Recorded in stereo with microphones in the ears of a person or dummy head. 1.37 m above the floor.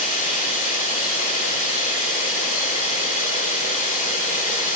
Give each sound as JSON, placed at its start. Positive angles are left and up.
{"t": 0.0, "sound": "running water", "side_deg": 35, "distance_m": 4.5}